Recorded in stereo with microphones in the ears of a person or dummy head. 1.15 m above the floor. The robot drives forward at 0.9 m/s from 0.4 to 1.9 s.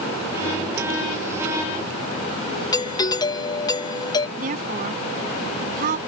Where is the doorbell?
30° left (ahead or behind).